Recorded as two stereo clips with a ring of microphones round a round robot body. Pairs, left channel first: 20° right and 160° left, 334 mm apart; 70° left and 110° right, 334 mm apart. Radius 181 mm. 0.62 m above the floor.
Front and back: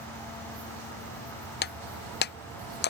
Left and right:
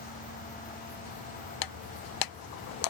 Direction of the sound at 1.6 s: 40° left.